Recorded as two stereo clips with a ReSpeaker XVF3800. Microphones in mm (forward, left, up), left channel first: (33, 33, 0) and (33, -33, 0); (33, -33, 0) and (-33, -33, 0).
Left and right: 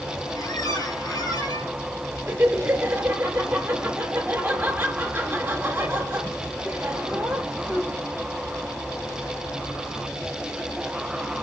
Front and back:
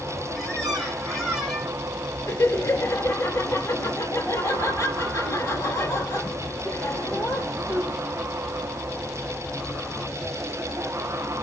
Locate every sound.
0.3 s a squeak: 85° left, 3.5 m
2.3 s laughter: 35° right, 2 m